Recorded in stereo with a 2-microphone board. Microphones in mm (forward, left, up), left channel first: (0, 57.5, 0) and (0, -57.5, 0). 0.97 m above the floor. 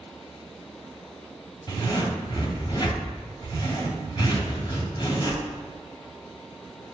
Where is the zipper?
45° left (ahead or behind), 3 m.